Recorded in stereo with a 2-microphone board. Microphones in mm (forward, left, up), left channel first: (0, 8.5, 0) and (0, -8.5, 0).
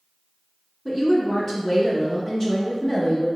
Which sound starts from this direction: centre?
A woman speaking, at 0.8 s.